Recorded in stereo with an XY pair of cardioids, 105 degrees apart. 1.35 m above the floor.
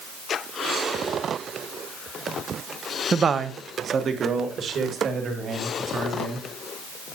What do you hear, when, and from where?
3.1 s a man speaking: 35° right, 0.7 m; by 6.5 s 60° right, 4 m